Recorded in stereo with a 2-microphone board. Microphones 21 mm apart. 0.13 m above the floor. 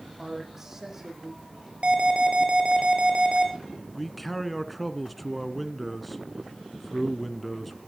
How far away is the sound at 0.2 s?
About 6.5 m.